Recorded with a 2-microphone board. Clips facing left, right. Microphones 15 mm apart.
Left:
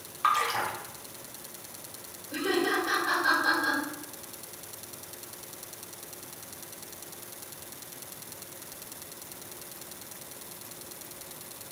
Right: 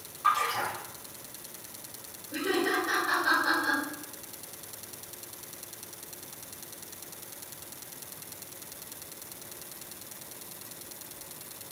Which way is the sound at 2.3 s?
70° left (ahead or behind).